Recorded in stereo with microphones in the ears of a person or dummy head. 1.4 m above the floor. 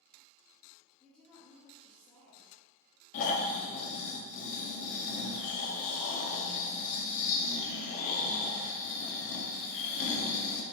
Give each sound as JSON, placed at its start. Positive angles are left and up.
{"t": 1.0, "sound": "a woman speaking", "side_deg": 10, "distance_m": 1.1}
{"t": 3.1, "sound": "snoring", "side_deg": 45, "distance_m": 0.6}